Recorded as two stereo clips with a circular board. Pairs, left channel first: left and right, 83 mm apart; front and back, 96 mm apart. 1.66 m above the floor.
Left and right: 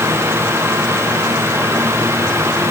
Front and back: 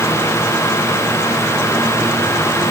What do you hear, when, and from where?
Only background noise.